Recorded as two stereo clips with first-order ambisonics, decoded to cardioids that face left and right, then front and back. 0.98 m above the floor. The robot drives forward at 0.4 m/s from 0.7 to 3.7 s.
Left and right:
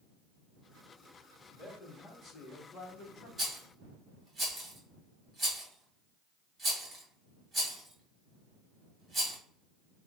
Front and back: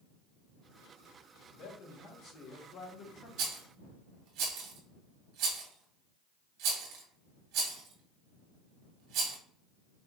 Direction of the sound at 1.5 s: 30° left.